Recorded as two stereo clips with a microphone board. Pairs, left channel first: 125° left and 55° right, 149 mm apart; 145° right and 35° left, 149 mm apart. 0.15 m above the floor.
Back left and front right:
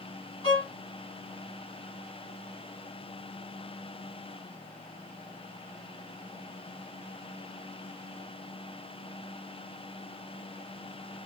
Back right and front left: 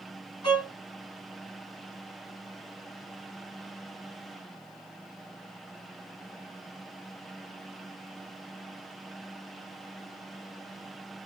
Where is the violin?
170° left, 1.3 m.